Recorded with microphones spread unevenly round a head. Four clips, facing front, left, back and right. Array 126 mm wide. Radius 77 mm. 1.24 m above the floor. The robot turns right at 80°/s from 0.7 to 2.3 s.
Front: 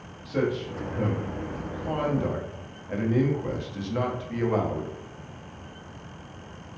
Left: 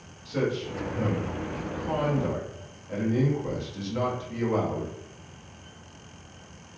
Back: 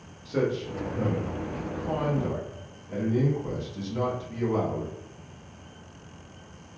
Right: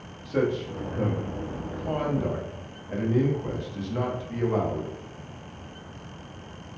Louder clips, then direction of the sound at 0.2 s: Right 2 dB, even; 125° right.